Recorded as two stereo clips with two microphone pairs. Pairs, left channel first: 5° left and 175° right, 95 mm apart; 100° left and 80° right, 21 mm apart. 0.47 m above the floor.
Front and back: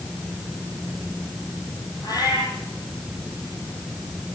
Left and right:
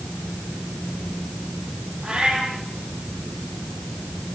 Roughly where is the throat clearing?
I don't hear throat clearing.